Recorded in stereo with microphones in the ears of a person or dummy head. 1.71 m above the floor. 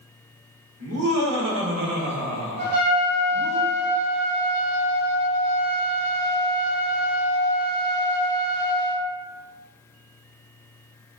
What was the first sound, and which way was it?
Laughter, 80° right.